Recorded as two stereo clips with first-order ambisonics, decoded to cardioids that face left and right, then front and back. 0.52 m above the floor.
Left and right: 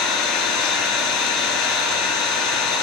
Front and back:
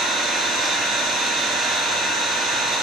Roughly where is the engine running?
Behind left.